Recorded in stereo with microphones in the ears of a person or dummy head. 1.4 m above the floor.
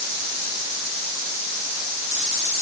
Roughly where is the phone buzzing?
No phone buzzing in this recording.